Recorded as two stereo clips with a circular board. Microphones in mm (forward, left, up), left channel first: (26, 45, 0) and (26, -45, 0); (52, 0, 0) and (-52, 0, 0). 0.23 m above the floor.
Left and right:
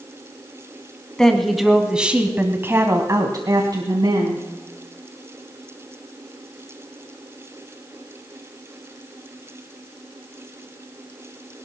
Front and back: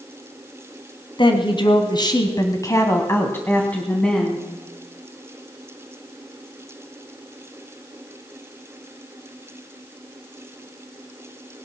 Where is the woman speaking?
10° left, 1.6 m; by 4.5 s 85° right, 1.8 m.